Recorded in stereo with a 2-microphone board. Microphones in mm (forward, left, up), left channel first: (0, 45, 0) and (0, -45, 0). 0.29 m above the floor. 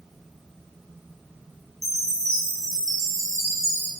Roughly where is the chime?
Right.